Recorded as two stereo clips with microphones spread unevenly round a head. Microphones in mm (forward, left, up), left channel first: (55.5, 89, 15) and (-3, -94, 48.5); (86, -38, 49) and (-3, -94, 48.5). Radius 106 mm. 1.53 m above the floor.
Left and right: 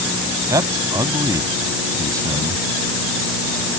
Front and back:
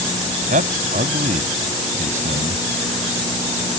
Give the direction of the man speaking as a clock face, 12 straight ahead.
6 o'clock.